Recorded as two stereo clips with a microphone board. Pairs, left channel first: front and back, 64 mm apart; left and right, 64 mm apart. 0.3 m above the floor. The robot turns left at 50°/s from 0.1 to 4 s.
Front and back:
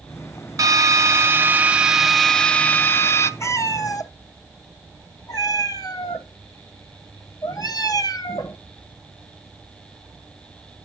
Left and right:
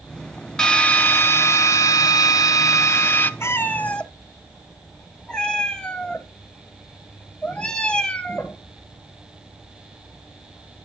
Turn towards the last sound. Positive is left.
turn(degrees=10)